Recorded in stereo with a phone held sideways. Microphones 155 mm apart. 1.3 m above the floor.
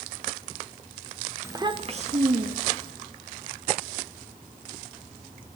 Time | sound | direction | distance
1.4 | a child speaking | 15° right (ahead or behind) | 1.3 m